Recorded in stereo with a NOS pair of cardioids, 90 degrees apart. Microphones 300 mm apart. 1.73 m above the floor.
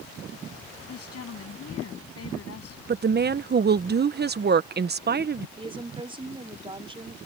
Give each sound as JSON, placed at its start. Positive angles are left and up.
{"t": 0.9, "sound": "a woman speaking", "azimuth_deg": 50}
{"t": 2.9, "sound": "a woman speaking", "azimuth_deg": -35}
{"t": 5.6, "sound": "a woman speaking", "azimuth_deg": -15}